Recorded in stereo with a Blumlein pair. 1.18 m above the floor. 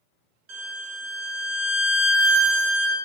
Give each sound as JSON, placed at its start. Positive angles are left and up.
{"t": 0.5, "sound": "a violin", "azimuth_deg": -40, "distance_m": 1.2}